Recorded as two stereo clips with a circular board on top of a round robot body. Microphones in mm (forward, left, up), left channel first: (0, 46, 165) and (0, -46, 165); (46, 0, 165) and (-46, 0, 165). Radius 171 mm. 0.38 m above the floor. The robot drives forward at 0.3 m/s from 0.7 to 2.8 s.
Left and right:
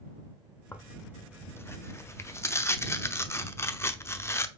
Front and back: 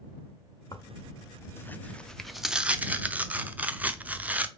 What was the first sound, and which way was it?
Tearing paper, 25° left.